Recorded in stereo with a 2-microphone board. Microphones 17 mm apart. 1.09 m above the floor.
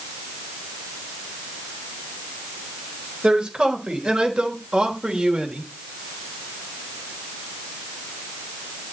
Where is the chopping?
I don't hear chopping.